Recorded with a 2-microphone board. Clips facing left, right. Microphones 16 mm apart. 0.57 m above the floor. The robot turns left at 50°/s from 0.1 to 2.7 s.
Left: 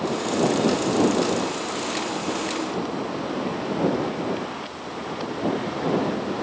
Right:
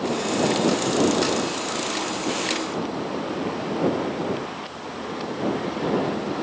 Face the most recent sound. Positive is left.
No sound to turn to.